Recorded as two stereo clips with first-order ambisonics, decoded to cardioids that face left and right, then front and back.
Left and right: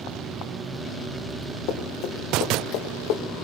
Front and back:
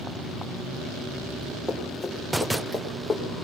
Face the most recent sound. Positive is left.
turn(degrees=80)